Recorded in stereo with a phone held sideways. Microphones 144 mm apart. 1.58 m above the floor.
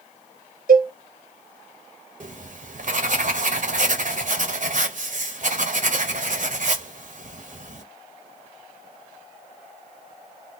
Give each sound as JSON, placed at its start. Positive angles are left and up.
{"t": 0.7, "sound": "a cowbell", "side_deg": -80, "distance_m": 0.8}
{"t": 2.2, "sound": "writing", "side_deg": -60, "distance_m": 0.6}